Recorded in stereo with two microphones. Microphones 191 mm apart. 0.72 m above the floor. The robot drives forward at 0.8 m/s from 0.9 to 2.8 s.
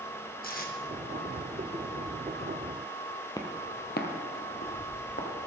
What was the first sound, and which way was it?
Tape being pulled, 45° left (ahead or behind).